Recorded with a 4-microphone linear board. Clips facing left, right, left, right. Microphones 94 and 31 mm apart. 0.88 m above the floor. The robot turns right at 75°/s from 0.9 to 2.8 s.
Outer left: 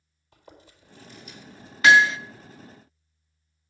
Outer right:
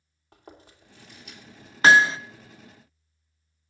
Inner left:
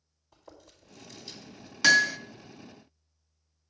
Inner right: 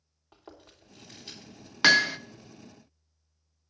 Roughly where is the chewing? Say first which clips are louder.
Outer right 2 dB, inner right 2 dB; right.